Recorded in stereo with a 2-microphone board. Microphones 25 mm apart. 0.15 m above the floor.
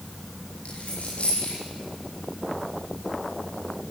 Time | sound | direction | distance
0.7 | a dropped coin | 65° left (ahead or behind) | 8.5 m